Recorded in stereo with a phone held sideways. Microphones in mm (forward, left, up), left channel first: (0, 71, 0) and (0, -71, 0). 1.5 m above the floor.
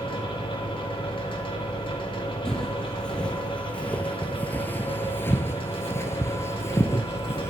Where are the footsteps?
5° left (ahead or behind), 2.5 m; by 7.5 s 20° left (ahead or behind), 1.9 m.